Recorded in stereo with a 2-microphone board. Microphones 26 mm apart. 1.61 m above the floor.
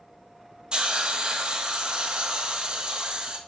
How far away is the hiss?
About 1.2 m.